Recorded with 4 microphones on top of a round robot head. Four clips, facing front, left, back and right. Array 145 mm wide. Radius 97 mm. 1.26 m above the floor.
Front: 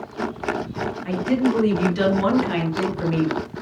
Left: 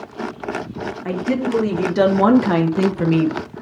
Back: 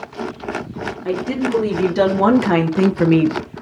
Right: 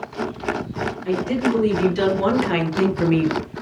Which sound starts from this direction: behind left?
A woman speaking, at 1.1 s.